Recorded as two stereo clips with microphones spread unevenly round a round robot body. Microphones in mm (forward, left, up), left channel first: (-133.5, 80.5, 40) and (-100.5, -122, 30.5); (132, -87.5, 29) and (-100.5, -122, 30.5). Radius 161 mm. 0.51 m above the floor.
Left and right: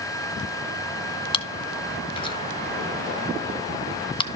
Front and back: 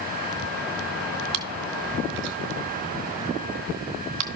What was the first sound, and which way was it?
Chewing, 160° left.